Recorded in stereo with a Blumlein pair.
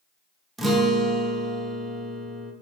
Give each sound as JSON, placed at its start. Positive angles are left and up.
{"t": 0.6, "sound": "a guitar", "azimuth_deg": -5, "distance_m": 0.5}